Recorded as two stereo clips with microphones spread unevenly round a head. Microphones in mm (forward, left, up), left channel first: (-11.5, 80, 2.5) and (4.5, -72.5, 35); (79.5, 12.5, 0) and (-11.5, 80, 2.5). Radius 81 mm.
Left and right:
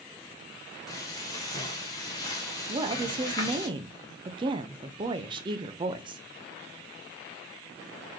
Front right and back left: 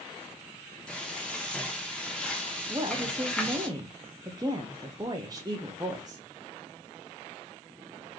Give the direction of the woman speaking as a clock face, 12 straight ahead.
5 o'clock.